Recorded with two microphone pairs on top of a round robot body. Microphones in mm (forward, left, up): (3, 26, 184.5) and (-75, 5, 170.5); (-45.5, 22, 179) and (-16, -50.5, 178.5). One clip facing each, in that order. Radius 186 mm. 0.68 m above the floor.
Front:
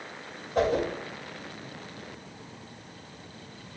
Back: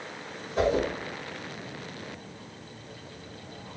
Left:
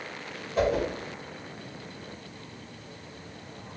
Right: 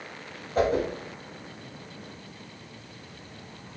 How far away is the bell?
I don't hear a bell.